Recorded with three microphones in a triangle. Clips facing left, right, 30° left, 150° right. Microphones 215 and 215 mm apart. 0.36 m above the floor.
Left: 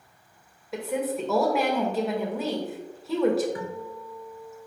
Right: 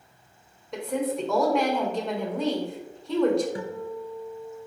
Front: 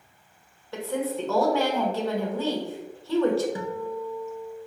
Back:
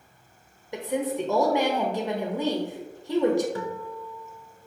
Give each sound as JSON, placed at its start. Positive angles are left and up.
{"t": 0.7, "sound": "a woman speaking", "azimuth_deg": 170, "distance_m": 0.9}
{"t": 3.5, "sound": "a guitar", "azimuth_deg": -40, "distance_m": 0.6}